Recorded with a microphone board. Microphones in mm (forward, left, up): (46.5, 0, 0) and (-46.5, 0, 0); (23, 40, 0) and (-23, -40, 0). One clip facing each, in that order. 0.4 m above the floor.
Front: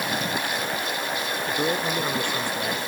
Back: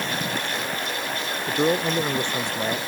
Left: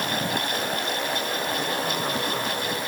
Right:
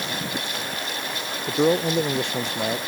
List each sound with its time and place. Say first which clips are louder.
1.5 s a man speaking: back 5 dB, right 7 dB; 110° right